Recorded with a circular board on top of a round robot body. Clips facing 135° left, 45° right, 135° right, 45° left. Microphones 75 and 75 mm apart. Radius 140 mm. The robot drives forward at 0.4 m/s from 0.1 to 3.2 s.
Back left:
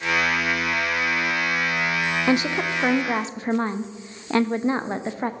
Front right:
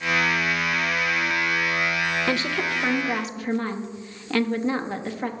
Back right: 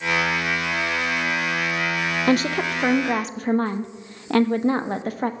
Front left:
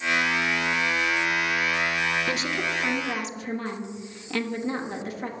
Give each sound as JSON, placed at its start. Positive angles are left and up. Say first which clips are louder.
{"t": 2.3, "sound": "a woman speaking", "louder": "back left 3 dB, back right 7 dB", "azimuth_deg": -155, "distance_m": 0.6}